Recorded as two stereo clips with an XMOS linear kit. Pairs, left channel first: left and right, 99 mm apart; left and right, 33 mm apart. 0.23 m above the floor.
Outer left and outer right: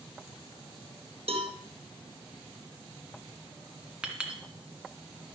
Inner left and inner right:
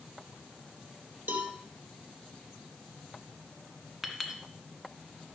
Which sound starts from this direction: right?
A cowbell, at 1.3 s.